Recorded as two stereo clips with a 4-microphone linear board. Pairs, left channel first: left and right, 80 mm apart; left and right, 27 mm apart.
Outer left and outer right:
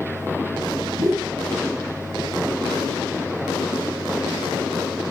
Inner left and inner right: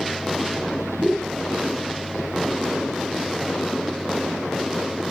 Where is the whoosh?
45° right (ahead or behind), 2.5 m.